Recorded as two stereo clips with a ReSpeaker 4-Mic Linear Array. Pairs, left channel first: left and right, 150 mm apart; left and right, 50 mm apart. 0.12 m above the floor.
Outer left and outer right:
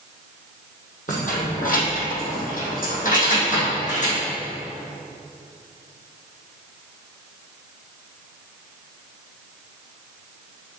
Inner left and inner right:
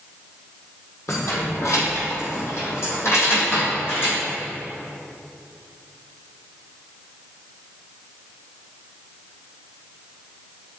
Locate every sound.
1.1 s keys jangling: 60° left (ahead or behind), 3 m; by 4.2 s 50° left (ahead or behind), 4.5 m